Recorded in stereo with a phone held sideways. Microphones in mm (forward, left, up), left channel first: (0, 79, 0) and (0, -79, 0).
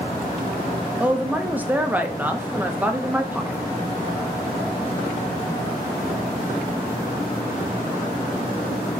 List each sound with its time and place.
1.0 s a woman speaking: 10° right (ahead or behind), 0.8 m